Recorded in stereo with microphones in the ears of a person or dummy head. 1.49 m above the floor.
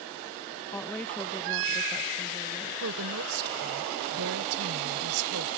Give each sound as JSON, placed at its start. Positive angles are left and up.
{"t": 0.7, "sound": "a woman speaking", "side_deg": 10}
{"t": 2.8, "sound": "a woman speaking", "side_deg": -85}